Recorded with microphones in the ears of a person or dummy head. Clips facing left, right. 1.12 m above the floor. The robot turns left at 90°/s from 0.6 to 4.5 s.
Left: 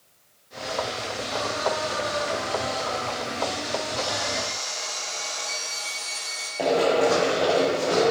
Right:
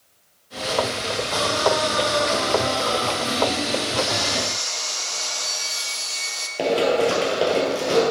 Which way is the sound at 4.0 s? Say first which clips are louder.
Right 4 dB; 15° right.